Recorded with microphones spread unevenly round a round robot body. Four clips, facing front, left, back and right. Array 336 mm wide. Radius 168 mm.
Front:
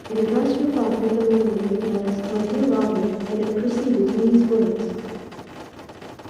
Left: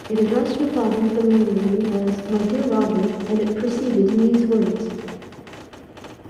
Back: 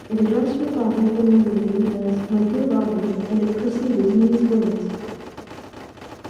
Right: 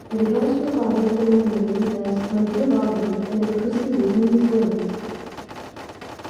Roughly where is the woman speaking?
Left.